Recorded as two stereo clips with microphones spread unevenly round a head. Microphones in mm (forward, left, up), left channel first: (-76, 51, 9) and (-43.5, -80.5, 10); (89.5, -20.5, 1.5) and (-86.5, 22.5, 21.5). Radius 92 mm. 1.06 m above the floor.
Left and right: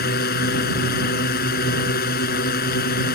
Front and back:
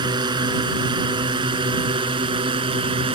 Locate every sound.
0.0 s a drone: 100° left; by 3.2 s 105° left